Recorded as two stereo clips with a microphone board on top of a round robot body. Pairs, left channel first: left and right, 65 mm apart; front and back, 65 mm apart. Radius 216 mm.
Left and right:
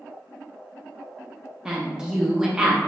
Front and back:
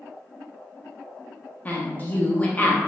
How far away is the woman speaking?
About 0.7 m.